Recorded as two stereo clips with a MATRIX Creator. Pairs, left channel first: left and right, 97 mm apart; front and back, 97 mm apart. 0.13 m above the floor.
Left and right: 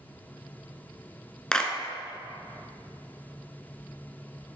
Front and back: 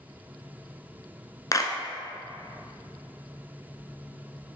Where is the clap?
15° left, 1.1 m.